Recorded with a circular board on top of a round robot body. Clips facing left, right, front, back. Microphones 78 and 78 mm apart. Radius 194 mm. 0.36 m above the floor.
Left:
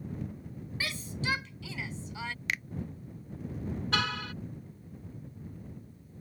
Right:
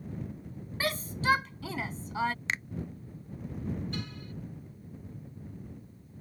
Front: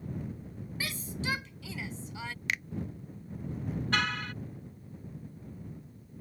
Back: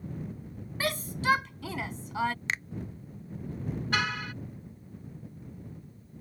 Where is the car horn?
95° left.